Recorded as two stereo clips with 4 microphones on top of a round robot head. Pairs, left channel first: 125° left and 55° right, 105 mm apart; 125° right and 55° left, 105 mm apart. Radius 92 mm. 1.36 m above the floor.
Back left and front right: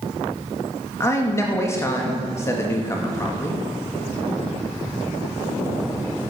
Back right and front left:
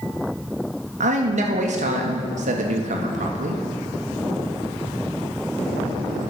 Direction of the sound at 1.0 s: 60° left.